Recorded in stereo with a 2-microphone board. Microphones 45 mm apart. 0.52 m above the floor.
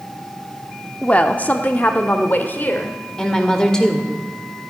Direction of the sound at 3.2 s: 15° left (ahead or behind).